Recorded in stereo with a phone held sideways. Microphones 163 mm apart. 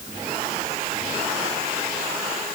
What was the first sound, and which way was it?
Only background noise.